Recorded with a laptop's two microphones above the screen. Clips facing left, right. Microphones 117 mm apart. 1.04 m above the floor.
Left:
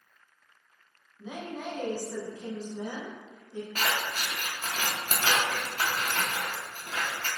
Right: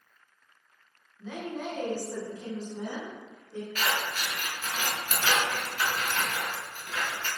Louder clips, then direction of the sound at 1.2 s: Right 2 dB; 20° left (ahead or behind).